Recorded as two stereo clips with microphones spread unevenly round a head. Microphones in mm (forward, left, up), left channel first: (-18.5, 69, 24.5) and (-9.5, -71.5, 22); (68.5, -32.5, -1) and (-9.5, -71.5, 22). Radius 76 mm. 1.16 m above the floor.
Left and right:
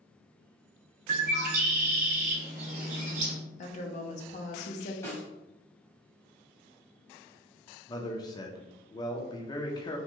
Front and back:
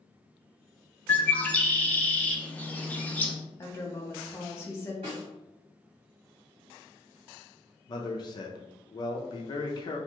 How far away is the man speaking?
About 0.5 m.